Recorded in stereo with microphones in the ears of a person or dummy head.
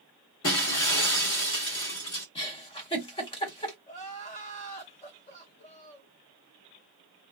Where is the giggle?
30° left (ahead or behind), 1.1 m.